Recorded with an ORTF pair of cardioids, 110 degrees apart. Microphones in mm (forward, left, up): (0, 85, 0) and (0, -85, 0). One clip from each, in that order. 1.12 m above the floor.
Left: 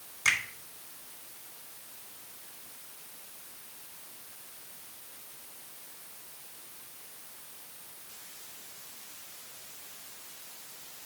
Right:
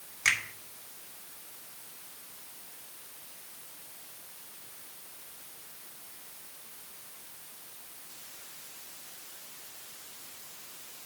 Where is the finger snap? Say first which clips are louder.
Even; 25° right, 2 m.